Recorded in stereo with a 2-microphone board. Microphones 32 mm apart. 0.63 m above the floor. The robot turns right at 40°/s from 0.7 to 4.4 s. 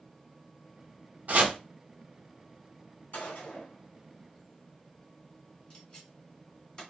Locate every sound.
1.3 s chopping: 60° right (ahead or behind), 1.0 m; by 1.6 s 65° right (ahead or behind), 1.0 m
3.1 s a gunshot: 80° left, 2.5 m; by 6.8 s 30° left (ahead or behind), 2.5 m